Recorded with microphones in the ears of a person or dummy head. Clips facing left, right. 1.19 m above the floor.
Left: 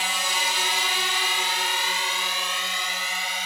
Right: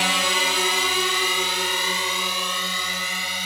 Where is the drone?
50° right (ahead or behind); by 3.5 s 85° right.